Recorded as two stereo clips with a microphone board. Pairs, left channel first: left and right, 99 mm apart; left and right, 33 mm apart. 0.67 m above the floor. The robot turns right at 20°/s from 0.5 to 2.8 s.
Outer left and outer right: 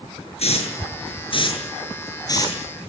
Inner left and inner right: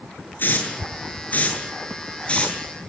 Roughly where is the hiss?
Left.